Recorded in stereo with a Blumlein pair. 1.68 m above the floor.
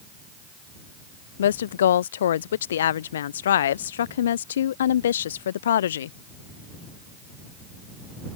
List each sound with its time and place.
1.4 s a woman speaking: 60° left